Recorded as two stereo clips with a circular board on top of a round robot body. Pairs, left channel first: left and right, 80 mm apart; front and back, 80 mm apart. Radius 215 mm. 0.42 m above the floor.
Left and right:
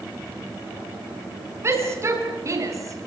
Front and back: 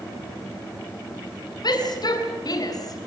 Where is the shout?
35° right, 8 m; by 3.1 s 45° right, 6 m.